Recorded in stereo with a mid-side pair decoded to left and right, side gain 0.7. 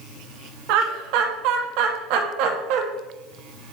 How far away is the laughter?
About 1.7 m.